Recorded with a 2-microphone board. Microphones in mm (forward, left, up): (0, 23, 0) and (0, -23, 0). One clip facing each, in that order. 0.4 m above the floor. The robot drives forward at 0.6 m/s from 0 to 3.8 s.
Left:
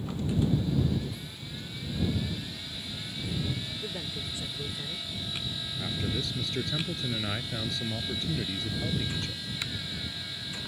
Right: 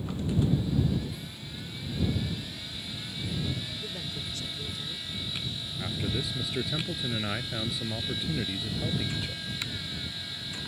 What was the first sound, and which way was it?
A man speaking, 20° left (ahead or behind).